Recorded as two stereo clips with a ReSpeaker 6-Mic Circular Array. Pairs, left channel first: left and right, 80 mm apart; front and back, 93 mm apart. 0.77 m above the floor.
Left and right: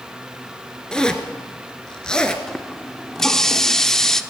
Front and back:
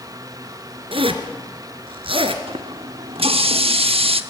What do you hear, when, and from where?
0.9 s a zipper: 170° left, 1.9 m
2.5 s a running tap: 175° left, 1.0 m